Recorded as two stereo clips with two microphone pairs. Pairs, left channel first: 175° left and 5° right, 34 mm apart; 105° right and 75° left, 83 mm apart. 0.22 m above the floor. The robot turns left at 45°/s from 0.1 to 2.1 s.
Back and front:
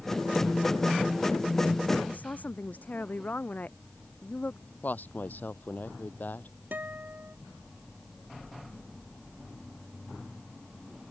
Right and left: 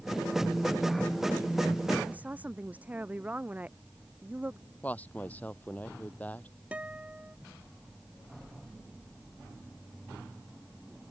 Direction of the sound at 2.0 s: 150° left.